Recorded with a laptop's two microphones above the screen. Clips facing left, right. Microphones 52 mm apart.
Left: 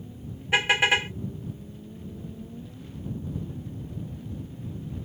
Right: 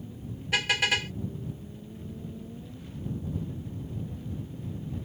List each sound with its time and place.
0.5 s a car horn: 25° left (ahead or behind)